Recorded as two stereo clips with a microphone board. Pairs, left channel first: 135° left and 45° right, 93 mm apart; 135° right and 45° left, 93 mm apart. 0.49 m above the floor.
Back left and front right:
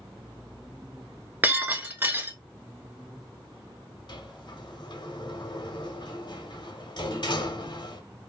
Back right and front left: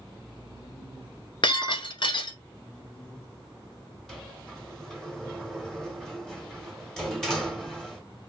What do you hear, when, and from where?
1.4 s breaking glass: 115° right, 0.9 m
4.1 s a sliding door: 140° left, 0.9 m